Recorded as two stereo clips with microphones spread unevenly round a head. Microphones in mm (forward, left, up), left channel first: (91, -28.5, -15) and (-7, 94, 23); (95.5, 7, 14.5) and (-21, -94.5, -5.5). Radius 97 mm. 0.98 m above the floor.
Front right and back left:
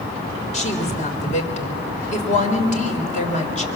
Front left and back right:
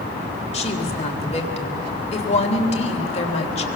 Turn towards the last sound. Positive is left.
turn(degrees=-10)